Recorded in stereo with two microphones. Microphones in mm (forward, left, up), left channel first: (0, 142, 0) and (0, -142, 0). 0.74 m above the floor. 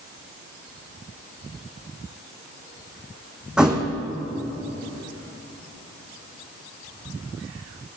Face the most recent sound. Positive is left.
turn(degrees=-5)  # may be behind; listen again after turning